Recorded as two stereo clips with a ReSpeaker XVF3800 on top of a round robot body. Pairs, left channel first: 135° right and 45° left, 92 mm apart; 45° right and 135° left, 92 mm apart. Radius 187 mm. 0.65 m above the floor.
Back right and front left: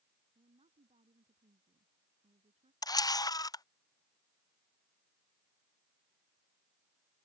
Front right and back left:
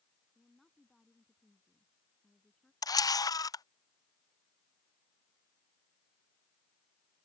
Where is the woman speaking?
45° left; by 2.7 s 40° left.